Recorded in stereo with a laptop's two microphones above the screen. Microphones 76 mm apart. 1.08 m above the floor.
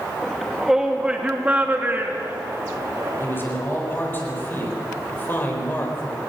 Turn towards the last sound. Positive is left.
turn(degrees=30)  # may be behind; listen again after turning